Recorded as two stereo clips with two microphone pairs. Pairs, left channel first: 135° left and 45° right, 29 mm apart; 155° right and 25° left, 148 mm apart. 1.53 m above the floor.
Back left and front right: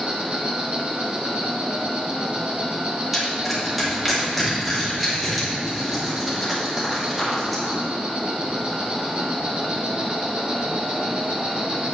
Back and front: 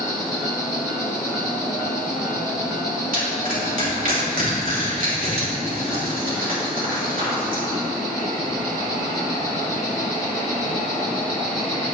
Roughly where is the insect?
Right.